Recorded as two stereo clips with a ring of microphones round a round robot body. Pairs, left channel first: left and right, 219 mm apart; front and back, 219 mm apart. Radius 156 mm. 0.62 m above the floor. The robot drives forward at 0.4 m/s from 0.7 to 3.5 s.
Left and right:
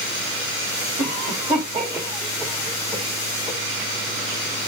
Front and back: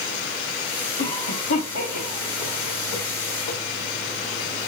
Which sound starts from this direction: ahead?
A cough, at 1.0 s.